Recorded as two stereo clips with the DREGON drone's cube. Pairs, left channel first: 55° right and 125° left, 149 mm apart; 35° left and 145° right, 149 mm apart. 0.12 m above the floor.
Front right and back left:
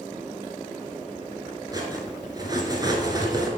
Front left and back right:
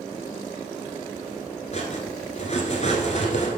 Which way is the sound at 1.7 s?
65° left.